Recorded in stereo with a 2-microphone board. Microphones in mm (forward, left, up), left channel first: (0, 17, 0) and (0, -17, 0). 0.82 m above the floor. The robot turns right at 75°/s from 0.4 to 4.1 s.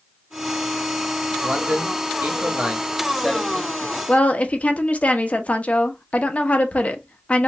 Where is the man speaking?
125° right, 0.9 m; by 4.0 s 65° left, 0.9 m.